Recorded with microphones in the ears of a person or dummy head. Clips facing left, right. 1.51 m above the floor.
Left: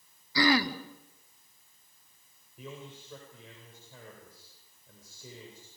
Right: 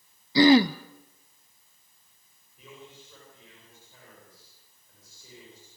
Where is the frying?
I don't hear frying.